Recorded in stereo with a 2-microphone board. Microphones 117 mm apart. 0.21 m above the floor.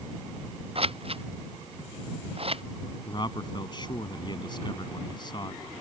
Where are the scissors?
50° right (ahead or behind).